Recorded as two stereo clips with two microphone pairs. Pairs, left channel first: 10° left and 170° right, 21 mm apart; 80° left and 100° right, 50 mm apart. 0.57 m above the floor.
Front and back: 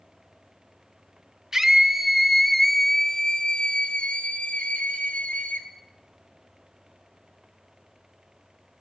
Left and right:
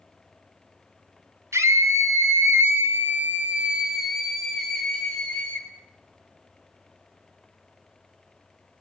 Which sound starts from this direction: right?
A scream, at 1.5 s.